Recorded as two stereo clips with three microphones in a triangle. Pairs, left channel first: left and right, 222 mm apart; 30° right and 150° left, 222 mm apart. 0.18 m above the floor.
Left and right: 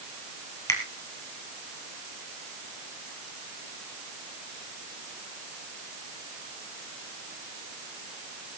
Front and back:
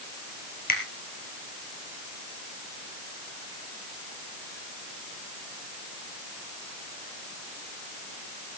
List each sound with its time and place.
0.7 s a finger snap: 15° left, 3 m